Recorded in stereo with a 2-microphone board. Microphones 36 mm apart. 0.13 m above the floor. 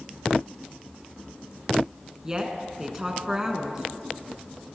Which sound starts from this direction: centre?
A woman speaking, at 2.2 s.